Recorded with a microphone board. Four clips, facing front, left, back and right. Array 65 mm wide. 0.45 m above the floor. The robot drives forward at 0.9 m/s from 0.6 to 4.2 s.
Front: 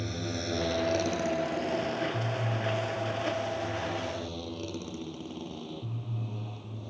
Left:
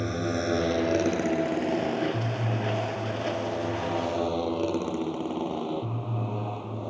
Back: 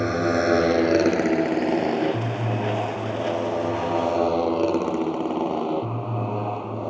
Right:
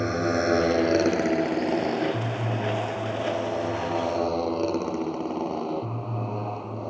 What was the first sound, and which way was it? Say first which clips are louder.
A motorcycle: right 4 dB, back 14 dB; 155° right.